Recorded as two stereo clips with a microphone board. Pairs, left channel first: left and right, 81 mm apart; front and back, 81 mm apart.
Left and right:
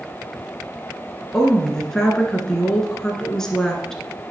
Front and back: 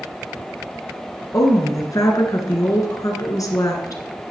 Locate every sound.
1.3 s a woman speaking: 10° left, 1.6 m